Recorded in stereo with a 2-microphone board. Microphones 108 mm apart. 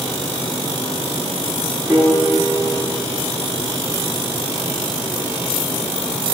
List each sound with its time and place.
1.9 s a piano: 35° right (ahead or behind), 7 m